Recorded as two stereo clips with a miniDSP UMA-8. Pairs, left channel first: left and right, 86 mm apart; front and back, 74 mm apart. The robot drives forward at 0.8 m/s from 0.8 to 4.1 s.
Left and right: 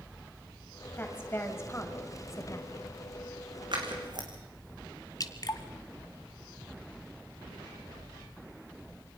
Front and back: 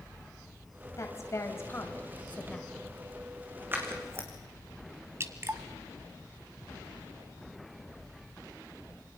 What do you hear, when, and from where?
1.0 s a woman speaking: 30° left, 2.5 m; by 2.9 s 80° left, 1.6 m
3.7 s scissors: 120° right, 3.5 m; by 4.3 s 125° right, 3.5 m
5.2 s dripping: 130° left, 1.2 m